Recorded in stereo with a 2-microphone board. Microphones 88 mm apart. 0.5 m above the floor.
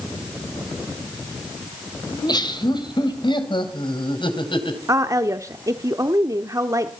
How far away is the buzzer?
No buzzer in this recording.